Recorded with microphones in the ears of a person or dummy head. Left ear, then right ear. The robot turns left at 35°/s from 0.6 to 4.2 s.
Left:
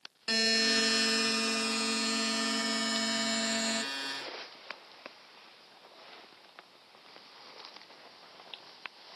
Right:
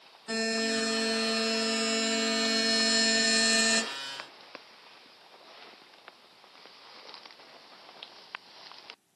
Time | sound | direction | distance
0.3 | a buzzer | 45° left | 0.6 m